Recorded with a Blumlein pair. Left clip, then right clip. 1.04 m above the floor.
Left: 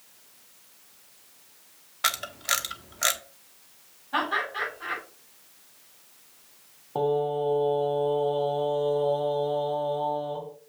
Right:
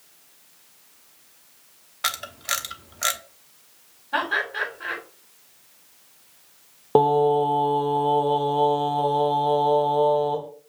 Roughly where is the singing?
Ahead right.